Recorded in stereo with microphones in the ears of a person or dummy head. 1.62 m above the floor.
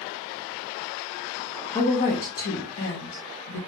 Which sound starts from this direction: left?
A woman speaking, at 1.7 s.